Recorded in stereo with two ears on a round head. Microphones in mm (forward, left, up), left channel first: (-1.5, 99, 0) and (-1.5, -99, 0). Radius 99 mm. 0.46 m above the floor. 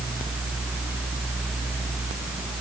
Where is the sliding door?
I don't hear a sliding door.